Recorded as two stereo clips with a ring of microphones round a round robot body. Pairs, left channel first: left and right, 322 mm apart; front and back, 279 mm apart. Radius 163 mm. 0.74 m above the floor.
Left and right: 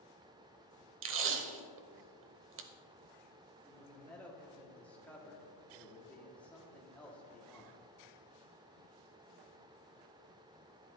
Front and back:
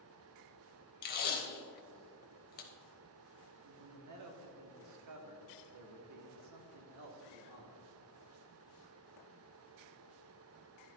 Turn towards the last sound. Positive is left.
turn(degrees=175)